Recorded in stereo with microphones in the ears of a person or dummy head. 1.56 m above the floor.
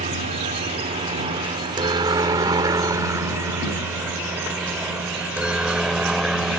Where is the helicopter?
35° right (ahead or behind); by 6.6 s centre (ahead or behind).